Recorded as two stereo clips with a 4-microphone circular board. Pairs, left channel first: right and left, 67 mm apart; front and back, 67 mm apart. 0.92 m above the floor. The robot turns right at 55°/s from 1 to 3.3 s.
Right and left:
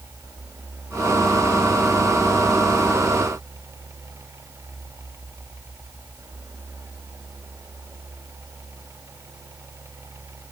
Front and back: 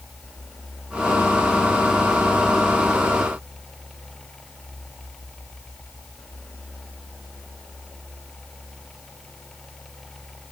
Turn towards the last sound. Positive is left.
No sound to turn to.